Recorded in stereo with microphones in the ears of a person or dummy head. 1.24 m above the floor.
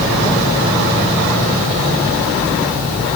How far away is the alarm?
I don't hear an alarm.